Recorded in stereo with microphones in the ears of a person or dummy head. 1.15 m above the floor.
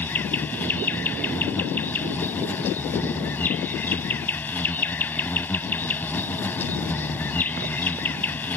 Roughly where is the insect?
Centre.